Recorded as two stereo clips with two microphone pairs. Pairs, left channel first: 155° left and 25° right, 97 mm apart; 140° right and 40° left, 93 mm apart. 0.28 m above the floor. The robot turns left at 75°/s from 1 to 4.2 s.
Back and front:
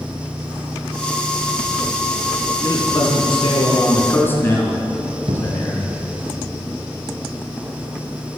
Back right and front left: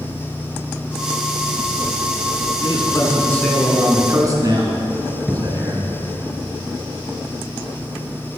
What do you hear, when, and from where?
2.6 s a man speaking: 155° right, 4 m; by 6.0 s 85° left, 4 m
5.3 s a cupboard door: 45° right, 1.8 m